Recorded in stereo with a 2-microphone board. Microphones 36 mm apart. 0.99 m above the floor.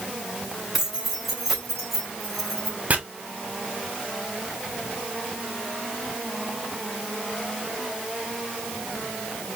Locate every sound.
0.7 s keys jangling: 10° right (ahead or behind), 3.5 m; by 2.8 s 5° left (ahead or behind), 3 m
2.9 s chopping: 45° right (ahead or behind), 1.2 m